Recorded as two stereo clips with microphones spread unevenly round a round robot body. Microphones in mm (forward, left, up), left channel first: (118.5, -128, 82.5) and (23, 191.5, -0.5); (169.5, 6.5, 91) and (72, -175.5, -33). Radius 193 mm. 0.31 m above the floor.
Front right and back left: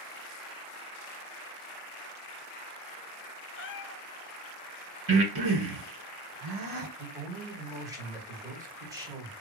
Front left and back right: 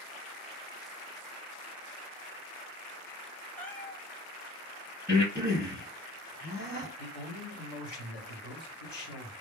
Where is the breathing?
130° left, 1.5 m.